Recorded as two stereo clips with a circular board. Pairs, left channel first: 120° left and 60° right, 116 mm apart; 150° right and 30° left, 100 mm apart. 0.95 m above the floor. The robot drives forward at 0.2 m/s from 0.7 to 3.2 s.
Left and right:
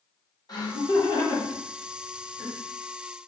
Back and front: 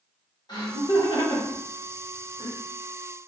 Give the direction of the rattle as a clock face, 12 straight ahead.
No rattle in this recording.